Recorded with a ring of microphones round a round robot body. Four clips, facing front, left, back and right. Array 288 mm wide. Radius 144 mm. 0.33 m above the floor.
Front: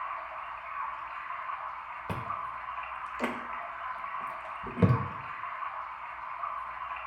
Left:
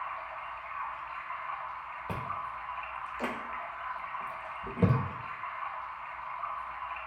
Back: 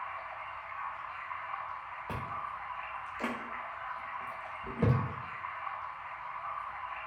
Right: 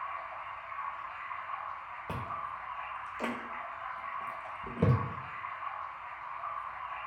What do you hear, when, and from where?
0.0 s running water: 30° left, 1.2 m
2.1 s chewing: 5° left, 0.7 m